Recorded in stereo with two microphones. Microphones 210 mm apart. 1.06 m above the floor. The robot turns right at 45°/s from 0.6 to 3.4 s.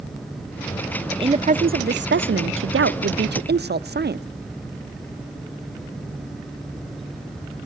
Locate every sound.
1.1 s a woman speaking: 160° right, 0.6 m; by 4.2 s 55° right, 0.6 m